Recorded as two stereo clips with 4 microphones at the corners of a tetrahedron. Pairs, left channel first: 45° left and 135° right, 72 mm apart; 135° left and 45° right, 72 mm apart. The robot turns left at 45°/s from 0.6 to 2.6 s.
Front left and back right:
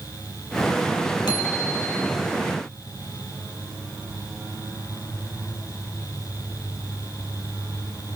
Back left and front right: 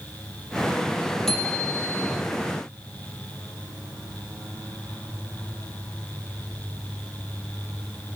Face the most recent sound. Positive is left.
turn(degrees=-10)